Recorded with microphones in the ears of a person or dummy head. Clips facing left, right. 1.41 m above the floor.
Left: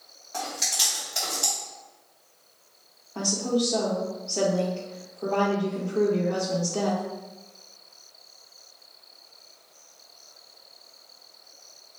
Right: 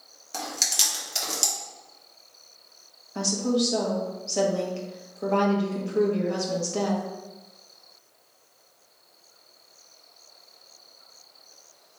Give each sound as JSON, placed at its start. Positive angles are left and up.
{"t": 0.3, "sound": "chewing", "side_deg": -45, "distance_m": 1.8}
{"t": 3.1, "sound": "a woman speaking", "side_deg": -30, "distance_m": 1.5}